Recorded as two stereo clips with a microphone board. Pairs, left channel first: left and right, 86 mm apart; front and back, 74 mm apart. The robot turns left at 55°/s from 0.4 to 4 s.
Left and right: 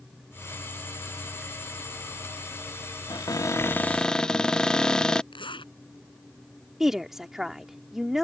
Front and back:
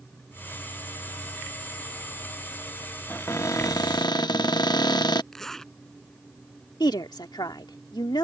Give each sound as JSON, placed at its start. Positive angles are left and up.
{"t": 3.1, "sound": "a cupboard door", "azimuth_deg": 60}
{"t": 5.3, "sound": "a zipper", "azimuth_deg": 85}
{"t": 6.8, "sound": "a woman speaking", "azimuth_deg": -5}